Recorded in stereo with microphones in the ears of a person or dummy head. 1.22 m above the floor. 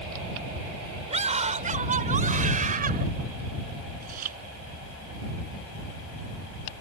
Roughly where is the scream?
Right.